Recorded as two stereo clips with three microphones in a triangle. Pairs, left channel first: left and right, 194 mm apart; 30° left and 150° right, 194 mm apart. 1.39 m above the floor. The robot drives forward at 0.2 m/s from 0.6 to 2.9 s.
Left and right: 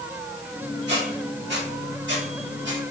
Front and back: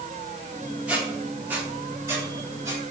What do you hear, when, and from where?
0.9 s a squeak: 65° right, 1.9 m; by 2.8 s 80° right, 1.8 m